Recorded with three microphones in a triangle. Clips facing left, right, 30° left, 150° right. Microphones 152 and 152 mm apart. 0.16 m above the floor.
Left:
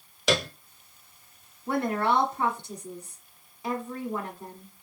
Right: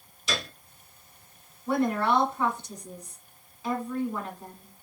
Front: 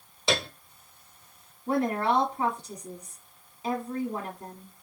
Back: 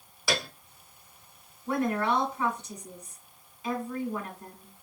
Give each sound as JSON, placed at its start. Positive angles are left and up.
{"t": 0.3, "sound": "a piano", "azimuth_deg": 95, "distance_m": 0.7}
{"t": 1.7, "sound": "a woman speaking", "azimuth_deg": 40, "distance_m": 1.2}